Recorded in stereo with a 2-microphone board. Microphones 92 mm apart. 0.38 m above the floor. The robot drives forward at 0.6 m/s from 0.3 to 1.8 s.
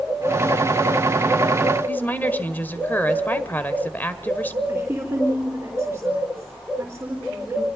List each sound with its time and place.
1.9 s a woman speaking: 20° left (ahead or behind), 1.6 m
4.7 s a woman speaking: 25° right (ahead or behind), 3.5 m